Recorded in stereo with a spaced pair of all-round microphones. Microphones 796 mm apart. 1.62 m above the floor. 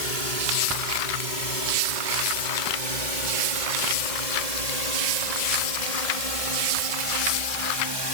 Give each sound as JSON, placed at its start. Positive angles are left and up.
{"t": 0.0, "sound": "a drone", "side_deg": -75}